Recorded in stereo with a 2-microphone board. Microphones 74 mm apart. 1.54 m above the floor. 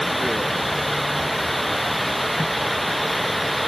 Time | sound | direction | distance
0.0 | running water | centre (ahead or behind) | ?